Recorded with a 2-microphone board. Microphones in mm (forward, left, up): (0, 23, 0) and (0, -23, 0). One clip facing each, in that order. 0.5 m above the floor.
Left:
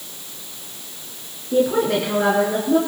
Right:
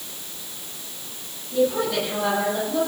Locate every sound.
1.5 s a woman speaking: 85° left, 5.5 m